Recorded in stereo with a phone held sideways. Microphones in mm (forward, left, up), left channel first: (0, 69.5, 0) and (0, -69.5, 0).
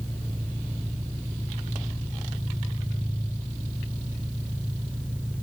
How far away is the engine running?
About 9 m.